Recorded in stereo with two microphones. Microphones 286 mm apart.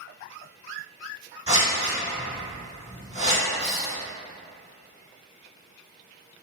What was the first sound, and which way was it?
Scissors, 20° right (ahead or behind).